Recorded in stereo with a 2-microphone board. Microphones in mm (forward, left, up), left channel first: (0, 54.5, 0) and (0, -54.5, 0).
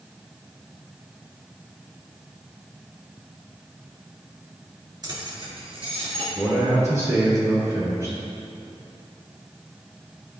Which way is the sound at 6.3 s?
25° right (ahead or behind).